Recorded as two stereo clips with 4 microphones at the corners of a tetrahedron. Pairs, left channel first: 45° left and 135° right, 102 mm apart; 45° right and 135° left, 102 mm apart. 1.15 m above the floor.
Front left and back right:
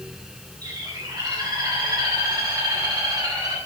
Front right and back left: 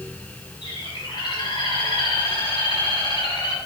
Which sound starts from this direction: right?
A bird, at 0.6 s.